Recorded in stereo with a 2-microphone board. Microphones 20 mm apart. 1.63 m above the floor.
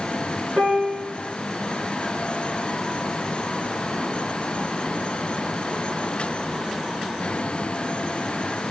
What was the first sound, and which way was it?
A piano, 40° right (ahead or behind).